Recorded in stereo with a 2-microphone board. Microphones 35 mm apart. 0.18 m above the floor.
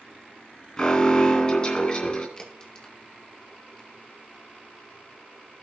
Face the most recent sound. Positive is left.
turn(degrees=25)  # may be behind; listen again after turning